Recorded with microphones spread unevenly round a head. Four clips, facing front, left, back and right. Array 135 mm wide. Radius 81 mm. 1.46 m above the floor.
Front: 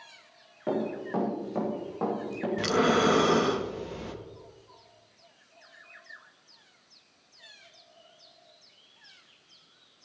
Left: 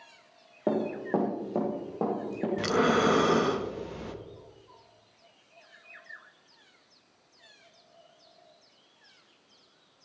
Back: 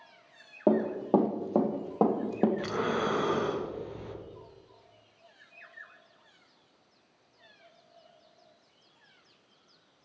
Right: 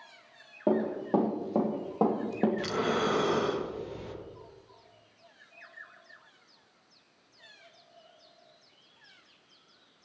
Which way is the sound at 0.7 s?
170° left.